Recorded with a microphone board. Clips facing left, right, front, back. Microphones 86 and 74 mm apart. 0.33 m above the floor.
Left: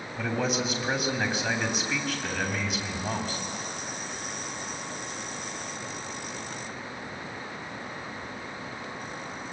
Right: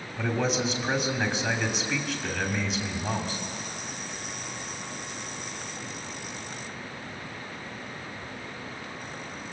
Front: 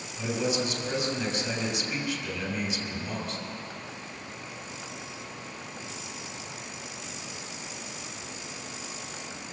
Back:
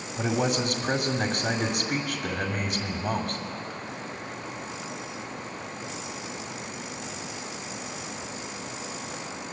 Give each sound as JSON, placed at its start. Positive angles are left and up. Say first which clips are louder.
{"t": 0.2, "sound": "a man speaking", "louder": "right 1 dB, back 3 dB", "azimuth_deg": 175, "distance_m": 2.5}